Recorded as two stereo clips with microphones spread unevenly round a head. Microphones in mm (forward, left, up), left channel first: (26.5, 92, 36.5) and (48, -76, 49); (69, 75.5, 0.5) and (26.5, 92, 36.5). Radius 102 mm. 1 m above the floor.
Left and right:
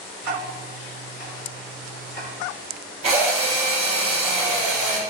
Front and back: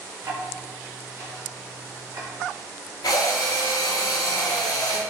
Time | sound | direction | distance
0.2 | ticking | 105° left | 1.0 m
3.0 | a drill | 30° right | 0.7 m